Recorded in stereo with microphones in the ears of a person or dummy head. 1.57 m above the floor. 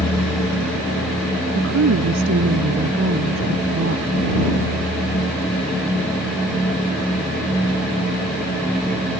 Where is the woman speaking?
65° right (ahead or behind).